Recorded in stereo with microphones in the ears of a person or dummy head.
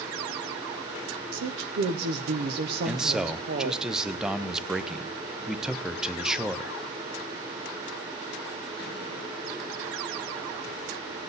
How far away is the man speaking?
About 0.5 m.